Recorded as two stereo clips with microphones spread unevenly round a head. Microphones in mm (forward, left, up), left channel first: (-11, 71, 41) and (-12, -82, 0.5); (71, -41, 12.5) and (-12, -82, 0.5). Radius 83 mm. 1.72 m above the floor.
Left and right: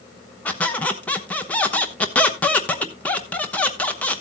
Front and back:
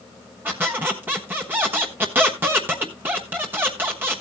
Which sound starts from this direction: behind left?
A squeak, at 0.5 s.